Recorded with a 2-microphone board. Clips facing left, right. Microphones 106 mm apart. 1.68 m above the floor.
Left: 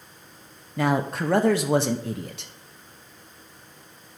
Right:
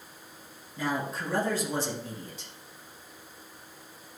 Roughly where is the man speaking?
Left.